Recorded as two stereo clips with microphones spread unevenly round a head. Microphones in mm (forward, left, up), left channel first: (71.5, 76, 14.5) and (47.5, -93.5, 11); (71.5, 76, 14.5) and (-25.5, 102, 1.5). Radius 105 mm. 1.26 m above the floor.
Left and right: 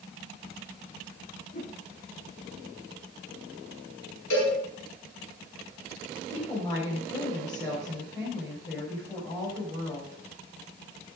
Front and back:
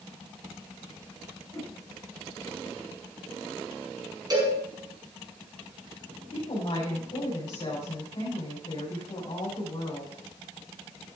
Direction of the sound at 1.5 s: 35° left.